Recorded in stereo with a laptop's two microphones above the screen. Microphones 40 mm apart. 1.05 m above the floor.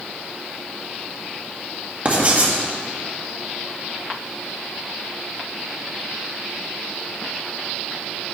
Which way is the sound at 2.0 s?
35° right (ahead or behind).